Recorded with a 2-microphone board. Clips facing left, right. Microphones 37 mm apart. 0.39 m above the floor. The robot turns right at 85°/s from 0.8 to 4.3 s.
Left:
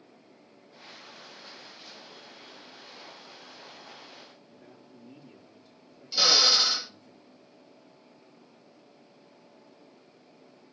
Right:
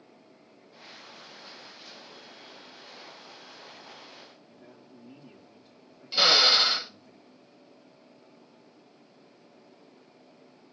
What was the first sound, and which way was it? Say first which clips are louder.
A man speaking: even; 20° right (ahead or behind).